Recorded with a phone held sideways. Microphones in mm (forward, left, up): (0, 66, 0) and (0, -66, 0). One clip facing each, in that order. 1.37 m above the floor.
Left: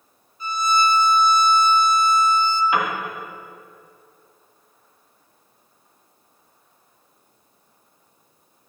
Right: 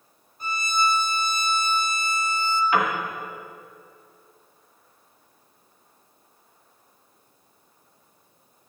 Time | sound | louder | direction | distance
0.4 | a violin | left 5 dB | 50° right (ahead or behind) | 0.7 m
2.7 | a piano | even | 15° left (ahead or behind) | 1.9 m